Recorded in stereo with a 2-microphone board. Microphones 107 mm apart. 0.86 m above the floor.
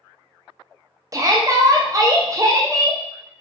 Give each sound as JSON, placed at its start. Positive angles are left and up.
{"t": 1.1, "sound": "a shout", "side_deg": -30, "distance_m": 0.6}